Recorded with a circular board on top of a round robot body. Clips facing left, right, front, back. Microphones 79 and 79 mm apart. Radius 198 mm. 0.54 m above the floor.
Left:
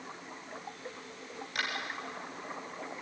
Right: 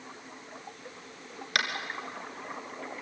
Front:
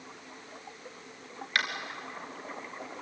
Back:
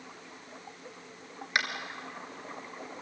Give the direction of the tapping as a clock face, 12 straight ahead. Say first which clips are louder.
Right 4 dB, even; 4 o'clock.